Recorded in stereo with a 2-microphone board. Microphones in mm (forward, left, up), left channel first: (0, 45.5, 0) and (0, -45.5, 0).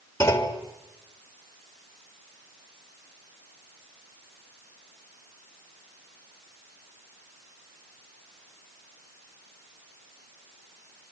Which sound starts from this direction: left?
A clunk, at 0.2 s.